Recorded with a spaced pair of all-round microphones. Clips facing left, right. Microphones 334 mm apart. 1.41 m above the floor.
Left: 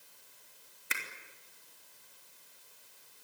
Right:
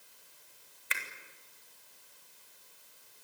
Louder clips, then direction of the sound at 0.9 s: Left 1 dB; 55° left (ahead or behind).